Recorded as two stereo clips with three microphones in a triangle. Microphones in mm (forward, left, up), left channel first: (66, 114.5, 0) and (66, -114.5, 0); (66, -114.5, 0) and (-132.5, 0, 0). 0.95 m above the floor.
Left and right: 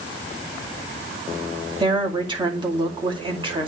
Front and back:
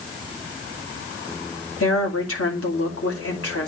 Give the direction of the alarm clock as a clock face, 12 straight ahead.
I don't hear an alarm clock.